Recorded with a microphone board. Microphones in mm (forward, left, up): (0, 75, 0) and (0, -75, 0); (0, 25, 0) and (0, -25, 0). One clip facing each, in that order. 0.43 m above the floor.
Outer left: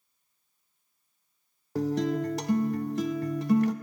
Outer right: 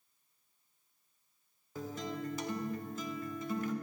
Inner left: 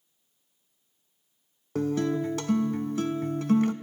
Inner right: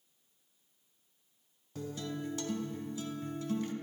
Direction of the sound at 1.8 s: 70° left (ahead or behind).